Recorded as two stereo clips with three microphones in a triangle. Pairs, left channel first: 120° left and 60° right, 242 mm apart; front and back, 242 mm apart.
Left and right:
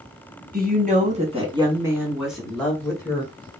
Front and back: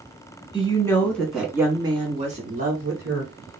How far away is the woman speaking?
About 1.2 m.